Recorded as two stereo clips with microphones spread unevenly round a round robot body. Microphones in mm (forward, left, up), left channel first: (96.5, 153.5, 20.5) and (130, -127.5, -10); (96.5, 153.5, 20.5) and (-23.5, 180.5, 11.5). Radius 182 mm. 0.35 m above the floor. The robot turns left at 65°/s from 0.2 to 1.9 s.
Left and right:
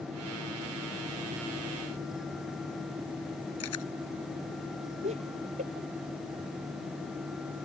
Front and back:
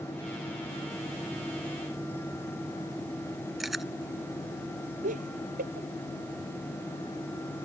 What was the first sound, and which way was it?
Chewing, 80° left.